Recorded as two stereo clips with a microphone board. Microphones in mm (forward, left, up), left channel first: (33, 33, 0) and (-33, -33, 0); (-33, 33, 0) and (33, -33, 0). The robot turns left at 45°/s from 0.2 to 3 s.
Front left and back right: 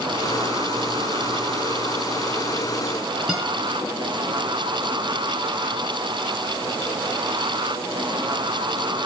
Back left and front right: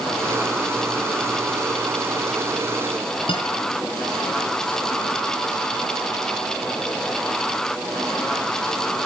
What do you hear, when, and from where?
3.3 s a guitar: 140° left, 5.5 m